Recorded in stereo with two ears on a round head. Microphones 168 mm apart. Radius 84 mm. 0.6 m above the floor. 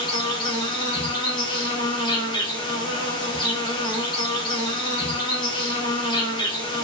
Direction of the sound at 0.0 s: 25° left (ahead or behind).